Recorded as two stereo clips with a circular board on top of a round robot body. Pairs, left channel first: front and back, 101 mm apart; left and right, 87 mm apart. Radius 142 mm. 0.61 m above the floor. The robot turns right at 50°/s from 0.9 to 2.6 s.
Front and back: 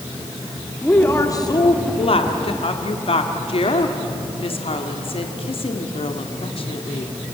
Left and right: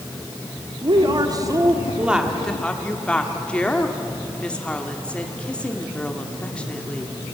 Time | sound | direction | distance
0.8 | a woman speaking | 70° right | 2 m